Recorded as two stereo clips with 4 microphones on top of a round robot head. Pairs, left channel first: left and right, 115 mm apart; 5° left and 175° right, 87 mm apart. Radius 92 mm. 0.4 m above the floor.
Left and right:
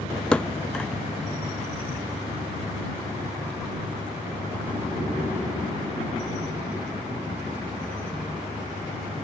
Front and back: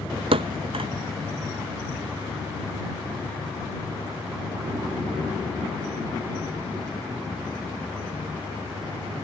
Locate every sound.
0.3 s a thud: 170° left